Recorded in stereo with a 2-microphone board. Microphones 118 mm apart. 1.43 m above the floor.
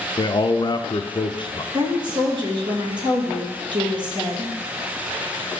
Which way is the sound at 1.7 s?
40° right (ahead or behind).